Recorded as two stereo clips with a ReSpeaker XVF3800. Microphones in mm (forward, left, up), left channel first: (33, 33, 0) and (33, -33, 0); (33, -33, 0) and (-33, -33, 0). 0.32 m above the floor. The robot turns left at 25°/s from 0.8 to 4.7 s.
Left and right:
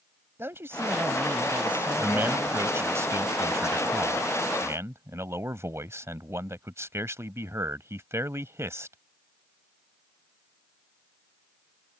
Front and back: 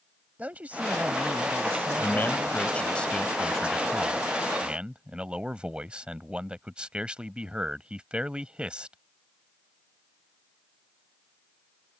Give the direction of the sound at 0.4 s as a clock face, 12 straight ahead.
4 o'clock.